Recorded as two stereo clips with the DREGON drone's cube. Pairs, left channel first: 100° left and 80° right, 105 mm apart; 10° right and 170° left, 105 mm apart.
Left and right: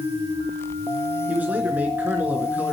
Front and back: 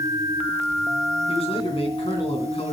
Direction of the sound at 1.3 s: 5° right.